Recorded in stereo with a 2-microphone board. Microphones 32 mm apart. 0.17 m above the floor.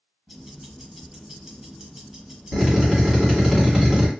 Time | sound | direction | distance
0.3 | ticking | 10° right (ahead or behind) | 1.4 m
2.5 | a drill | 10° right (ahead or behind) | 1.7 m